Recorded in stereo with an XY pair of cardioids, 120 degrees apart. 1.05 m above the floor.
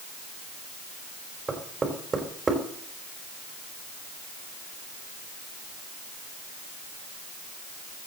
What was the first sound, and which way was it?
Knocking, 20° right.